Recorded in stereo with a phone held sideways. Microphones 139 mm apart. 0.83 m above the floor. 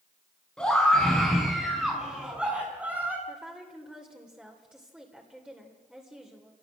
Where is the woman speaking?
5° right (ahead or behind), 3 m.